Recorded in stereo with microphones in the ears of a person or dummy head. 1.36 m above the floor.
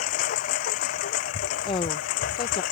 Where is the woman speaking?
30° left (ahead or behind).